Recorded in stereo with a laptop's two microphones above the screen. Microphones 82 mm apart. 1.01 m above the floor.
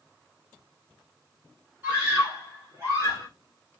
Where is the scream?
15° right (ahead or behind), 3 m; by 3.3 s 35° right (ahead or behind), 1.6 m.